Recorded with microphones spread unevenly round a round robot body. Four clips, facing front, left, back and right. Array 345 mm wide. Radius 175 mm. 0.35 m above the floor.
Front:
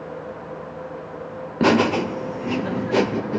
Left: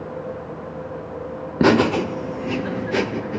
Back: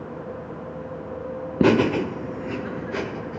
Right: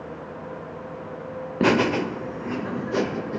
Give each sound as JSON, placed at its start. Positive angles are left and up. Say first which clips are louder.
{"t": 1.6, "sound": "laughter", "louder": "left 4 dB, front 1 dB", "azimuth_deg": 150, "distance_m": 1.1}